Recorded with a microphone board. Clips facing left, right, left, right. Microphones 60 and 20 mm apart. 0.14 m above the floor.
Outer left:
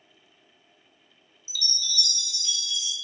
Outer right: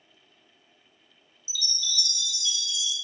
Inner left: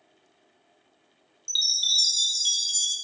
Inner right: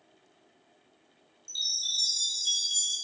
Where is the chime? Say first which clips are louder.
Even, inner left 7 dB; 60° left (ahead or behind), 0.7 m.